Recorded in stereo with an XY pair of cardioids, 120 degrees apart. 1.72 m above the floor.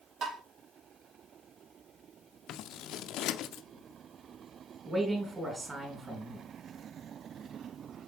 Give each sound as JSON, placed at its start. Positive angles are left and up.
{"t": 0.2, "sound": "tapping", "azimuth_deg": -65, "distance_m": 2.5}
{"t": 2.5, "sound": "scissors", "azimuth_deg": 70, "distance_m": 0.5}
{"t": 4.8, "sound": "a man speaking", "azimuth_deg": -25, "distance_m": 3.0}